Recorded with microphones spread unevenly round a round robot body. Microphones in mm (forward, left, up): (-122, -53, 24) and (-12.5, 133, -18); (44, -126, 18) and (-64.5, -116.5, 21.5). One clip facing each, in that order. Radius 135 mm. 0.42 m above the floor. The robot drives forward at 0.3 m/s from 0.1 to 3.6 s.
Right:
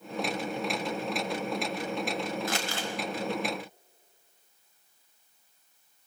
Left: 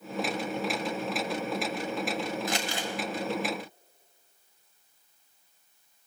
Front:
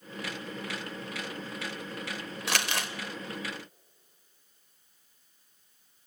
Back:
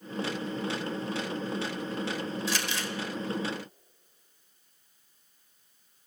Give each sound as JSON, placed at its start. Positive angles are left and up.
{"t": 2.5, "sound": "crumpling", "azimuth_deg": -10, "distance_m": 1.2}